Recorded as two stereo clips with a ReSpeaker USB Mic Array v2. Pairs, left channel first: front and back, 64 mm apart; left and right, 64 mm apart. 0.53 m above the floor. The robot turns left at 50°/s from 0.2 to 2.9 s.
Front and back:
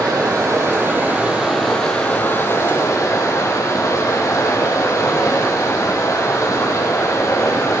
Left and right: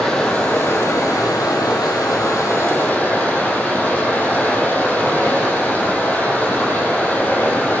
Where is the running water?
165° left, 6 m; by 7.8 s 30° left, 6 m.